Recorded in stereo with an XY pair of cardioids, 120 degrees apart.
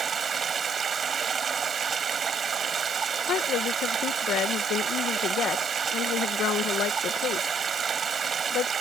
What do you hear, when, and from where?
0.0 s running water: 35° right
3.3 s a woman speaking: 65° left